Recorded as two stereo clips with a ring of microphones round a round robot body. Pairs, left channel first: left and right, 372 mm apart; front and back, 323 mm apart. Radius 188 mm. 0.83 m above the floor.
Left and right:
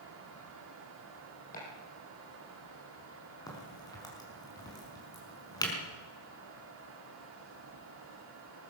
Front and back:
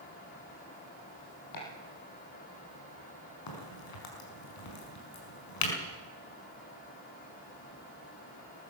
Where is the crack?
10° left, 5.5 m.